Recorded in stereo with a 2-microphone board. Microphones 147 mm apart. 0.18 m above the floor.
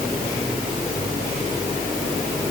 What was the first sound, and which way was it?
Only background noise.